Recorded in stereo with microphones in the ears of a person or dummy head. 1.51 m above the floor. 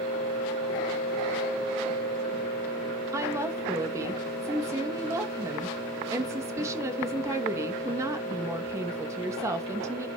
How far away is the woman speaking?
About 2.5 m.